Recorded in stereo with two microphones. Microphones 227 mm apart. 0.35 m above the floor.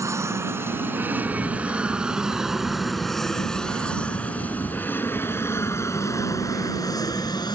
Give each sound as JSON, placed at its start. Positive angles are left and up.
{"t": 0.0, "sound": "an aircraft", "side_deg": -15}
{"t": 1.2, "sound": "a camera shutter", "side_deg": 25}